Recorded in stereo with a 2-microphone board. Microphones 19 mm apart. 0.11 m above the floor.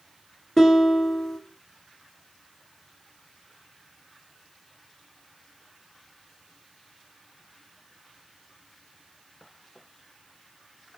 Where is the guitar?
20° left (ahead or behind), 1.8 m.